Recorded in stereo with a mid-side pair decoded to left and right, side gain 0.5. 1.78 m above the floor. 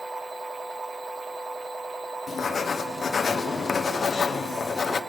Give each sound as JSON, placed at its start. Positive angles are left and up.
{"t": 0.0, "sound": "a machine running", "azimuth_deg": -25, "distance_m": 1.3}
{"t": 2.3, "sound": "writing", "azimuth_deg": 40, "distance_m": 1.2}